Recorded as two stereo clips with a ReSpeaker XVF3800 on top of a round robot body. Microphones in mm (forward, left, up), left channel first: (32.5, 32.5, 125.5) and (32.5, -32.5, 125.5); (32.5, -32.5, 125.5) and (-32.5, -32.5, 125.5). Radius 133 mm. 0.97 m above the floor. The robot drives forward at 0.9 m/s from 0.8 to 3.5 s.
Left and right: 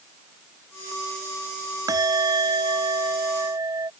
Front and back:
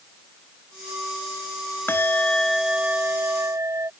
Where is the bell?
60° right; by 3.9 s 135° right.